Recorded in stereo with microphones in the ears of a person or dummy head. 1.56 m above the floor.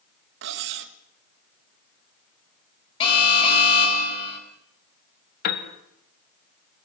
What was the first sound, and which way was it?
Cutlery clinking, 60° right (ahead or behind).